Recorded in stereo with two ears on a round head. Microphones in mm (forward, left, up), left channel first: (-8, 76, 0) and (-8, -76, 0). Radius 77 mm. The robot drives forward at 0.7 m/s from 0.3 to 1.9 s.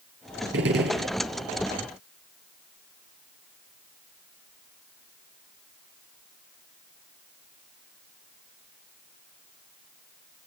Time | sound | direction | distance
0.5 | a gunshot | 70° right (ahead or behind) | 4.5 m